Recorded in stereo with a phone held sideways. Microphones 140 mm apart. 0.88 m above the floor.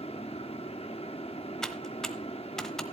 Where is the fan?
45° left (ahead or behind), 0.9 m.